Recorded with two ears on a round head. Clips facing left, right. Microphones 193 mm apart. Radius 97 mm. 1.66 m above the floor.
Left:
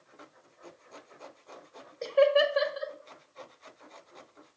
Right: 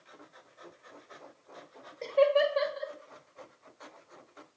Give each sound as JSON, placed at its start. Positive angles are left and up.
{"t": 2.0, "sound": "laughter", "side_deg": 10, "distance_m": 1.3}